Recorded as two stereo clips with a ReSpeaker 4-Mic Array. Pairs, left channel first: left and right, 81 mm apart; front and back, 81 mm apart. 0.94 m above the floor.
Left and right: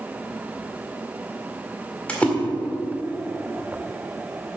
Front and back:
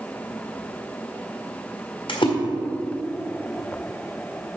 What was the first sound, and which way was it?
A splash, 15° left.